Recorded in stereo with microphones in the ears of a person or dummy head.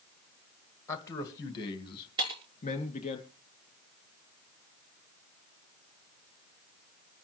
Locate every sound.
0.9 s a man speaking: 15° left (ahead or behind), 1.8 m; by 3.2 s 30° left (ahead or behind), 3 m
2.2 s breaking glass: 30° right (ahead or behind), 5 m